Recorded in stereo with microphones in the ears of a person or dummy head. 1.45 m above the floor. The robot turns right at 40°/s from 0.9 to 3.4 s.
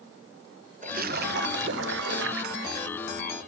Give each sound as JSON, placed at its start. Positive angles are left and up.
{"t": 0.8, "sound": "a splash", "azimuth_deg": -135, "distance_m": 0.6}